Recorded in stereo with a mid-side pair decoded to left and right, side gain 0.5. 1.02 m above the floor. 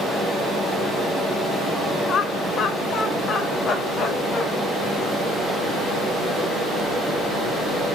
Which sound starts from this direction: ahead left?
Laughter, at 2.1 s.